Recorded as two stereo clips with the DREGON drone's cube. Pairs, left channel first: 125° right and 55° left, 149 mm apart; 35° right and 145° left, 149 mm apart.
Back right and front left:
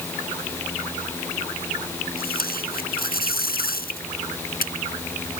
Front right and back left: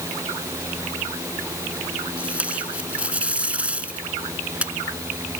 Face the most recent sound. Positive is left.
turn(degrees=-130)